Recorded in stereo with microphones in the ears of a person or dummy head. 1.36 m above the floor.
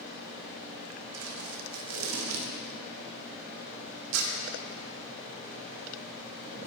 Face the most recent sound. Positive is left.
turn(degrees=-85)